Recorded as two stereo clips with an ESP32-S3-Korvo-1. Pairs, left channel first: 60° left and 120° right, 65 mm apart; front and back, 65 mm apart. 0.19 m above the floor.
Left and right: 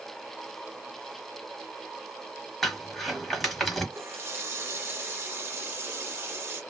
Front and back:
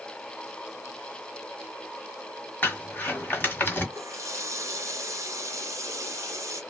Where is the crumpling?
30° right, 1.5 m.